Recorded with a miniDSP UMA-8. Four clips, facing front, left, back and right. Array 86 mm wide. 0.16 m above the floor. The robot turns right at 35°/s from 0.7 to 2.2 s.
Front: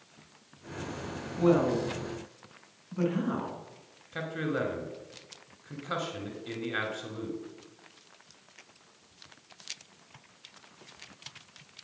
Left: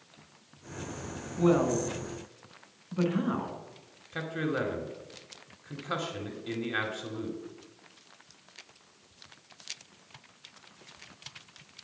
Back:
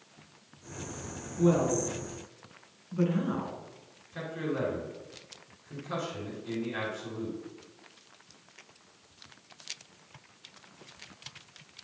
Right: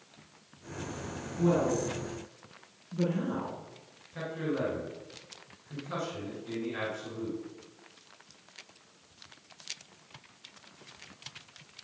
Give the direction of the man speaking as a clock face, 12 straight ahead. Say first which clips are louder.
Left 2 dB, front 2 dB; 10 o'clock.